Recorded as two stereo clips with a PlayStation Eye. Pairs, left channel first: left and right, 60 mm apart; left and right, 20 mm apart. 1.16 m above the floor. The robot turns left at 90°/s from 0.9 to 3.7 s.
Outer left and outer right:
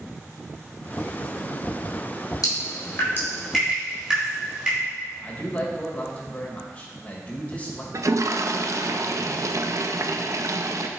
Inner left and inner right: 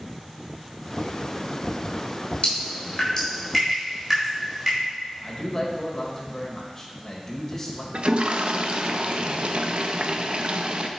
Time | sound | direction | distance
2.4 | dripping | 85° left | 3.5 m
5.2 | a man speaking | 25° left (ahead or behind) | 1.7 m
7.9 | a toilet flushing | 60° right (ahead or behind) | 0.6 m